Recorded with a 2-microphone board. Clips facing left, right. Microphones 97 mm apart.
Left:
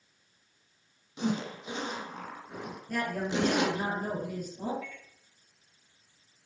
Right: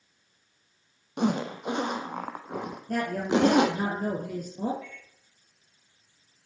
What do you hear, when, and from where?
1.2 s a zipper: 60° right (ahead or behind), 1.3 m
2.9 s a woman speaking: 55° right (ahead or behind), 3.5 m
4.8 s a microwave: 35° right (ahead or behind), 7 m